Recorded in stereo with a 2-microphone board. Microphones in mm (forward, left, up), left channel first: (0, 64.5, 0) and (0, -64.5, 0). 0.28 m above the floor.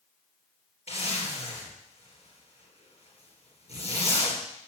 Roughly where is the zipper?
Left.